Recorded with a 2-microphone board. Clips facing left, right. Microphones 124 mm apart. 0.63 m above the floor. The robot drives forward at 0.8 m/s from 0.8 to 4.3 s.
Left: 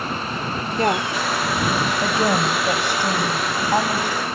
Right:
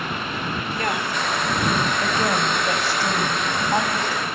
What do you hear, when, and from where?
0.8 s a woman speaking: 35° left (ahead or behind), 1.4 m; by 4.3 s 10° left (ahead or behind), 4 m